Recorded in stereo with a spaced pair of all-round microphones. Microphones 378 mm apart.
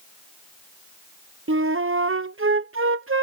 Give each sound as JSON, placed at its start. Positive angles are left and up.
{"t": 1.5, "sound": "a flute", "side_deg": -35}